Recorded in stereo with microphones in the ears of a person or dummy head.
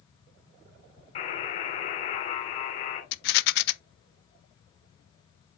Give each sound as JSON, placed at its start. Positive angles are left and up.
{"t": 1.1, "sound": "a buzzer", "side_deg": 40, "distance_m": 3.5}
{"t": 3.1, "sound": "a rattle", "side_deg": 65, "distance_m": 0.6}